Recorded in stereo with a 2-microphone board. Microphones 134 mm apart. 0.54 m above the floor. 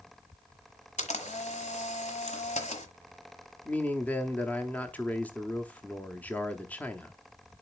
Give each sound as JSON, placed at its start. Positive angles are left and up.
{"t": 1.0, "sound": "a camera shutter", "side_deg": 60, "distance_m": 1.3}
{"t": 3.6, "sound": "a man speaking", "side_deg": 10, "distance_m": 0.9}